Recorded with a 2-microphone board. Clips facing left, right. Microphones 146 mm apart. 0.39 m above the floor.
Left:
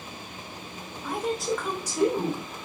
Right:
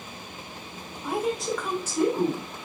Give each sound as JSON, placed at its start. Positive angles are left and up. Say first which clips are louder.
{"t": 1.0, "sound": "a woman speaking", "louder": "right 1 dB", "side_deg": -10, "distance_m": 0.9}